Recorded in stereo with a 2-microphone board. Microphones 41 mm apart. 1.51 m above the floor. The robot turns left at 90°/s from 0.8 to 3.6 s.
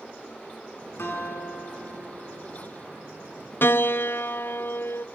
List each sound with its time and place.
1.0 s a guitar: 90° left, 9 m; by 2.7 s 60° right, 9 m
3.6 s a piano: 60° left (ahead or behind), 0.8 m